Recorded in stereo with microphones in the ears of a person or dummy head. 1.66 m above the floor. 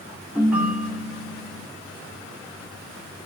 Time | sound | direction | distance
0.3 | a ringtone | 10° right (ahead or behind) | 2 m